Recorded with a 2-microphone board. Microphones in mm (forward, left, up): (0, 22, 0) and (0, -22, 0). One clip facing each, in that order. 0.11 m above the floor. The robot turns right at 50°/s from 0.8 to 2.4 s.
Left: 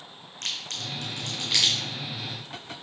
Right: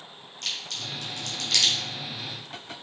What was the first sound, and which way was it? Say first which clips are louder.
A crack: even; 50° left (ahead or behind).